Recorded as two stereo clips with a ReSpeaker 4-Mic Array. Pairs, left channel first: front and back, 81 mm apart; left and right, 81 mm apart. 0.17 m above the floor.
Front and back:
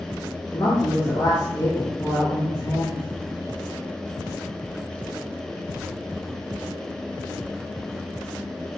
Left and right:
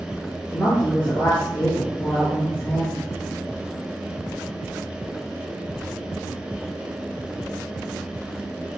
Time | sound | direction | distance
0.5 | a woman speaking | 40° left | 4 m